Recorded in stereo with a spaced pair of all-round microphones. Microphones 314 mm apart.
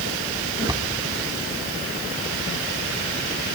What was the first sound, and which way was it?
A cupboard door, 10° right (ahead or behind).